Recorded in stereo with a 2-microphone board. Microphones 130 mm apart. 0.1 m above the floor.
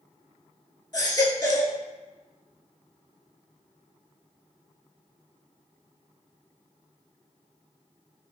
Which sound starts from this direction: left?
A baby crying, at 0.9 s.